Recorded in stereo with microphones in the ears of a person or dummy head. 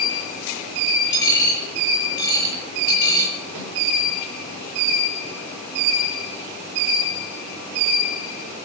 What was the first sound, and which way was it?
A dropped coin, 25° left (ahead or behind).